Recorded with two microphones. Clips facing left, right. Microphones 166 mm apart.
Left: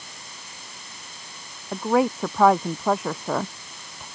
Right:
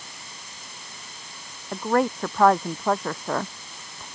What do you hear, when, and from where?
1.7 s a woman speaking: 5° left (ahead or behind)